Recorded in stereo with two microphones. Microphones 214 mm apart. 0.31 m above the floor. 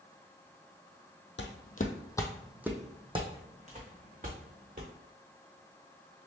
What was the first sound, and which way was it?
Footsteps, 60° left (ahead or behind).